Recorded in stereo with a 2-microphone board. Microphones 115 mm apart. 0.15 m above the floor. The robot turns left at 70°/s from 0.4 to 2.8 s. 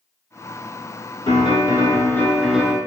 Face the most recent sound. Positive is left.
turn(degrees=-20)